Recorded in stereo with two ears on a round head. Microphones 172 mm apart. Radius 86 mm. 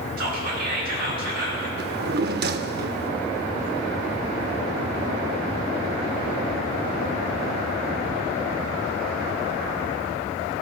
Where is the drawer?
55° right (ahead or behind), 0.6 m.